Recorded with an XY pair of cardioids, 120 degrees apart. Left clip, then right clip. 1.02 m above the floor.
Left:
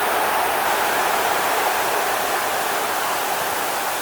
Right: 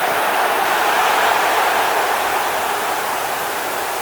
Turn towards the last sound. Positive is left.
No sound to turn to.